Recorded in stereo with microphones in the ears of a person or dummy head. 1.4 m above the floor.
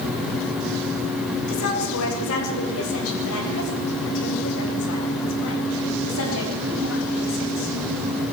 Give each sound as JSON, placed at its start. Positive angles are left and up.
{"t": 1.5, "sound": "a woman speaking", "side_deg": 85, "distance_m": 7.0}